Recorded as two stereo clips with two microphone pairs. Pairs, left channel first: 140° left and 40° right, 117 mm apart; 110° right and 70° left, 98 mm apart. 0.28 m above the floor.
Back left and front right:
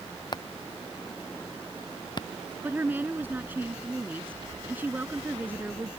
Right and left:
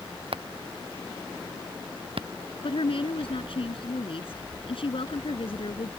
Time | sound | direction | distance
0.3 | hammering | 90° left | ?
2.6 | a woman speaking | 115° right | ?